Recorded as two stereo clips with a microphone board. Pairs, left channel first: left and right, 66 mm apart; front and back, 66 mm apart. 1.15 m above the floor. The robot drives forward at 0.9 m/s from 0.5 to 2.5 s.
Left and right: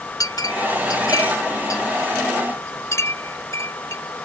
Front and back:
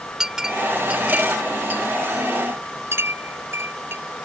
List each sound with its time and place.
0.2 s a clink: 100° left; by 4.3 s 130° left